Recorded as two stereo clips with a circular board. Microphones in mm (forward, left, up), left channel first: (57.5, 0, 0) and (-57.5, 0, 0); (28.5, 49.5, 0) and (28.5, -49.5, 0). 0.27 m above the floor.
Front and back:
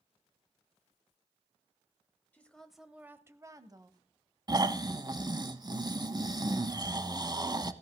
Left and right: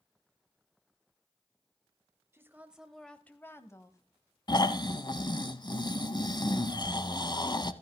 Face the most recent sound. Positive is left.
turn(degrees=130)